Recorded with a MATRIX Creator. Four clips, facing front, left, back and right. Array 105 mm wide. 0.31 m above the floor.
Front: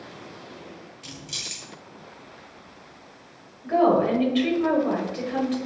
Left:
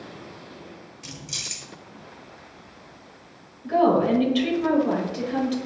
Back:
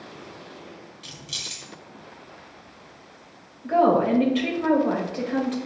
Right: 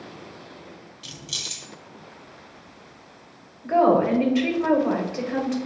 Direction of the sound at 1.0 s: 70° left.